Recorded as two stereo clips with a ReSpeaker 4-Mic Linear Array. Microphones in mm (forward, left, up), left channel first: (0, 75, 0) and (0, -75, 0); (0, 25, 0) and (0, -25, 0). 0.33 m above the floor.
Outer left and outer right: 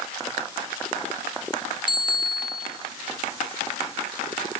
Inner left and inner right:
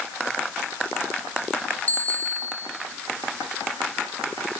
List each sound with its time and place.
1.9 s a bicycle bell: 30° left (ahead or behind), 5 m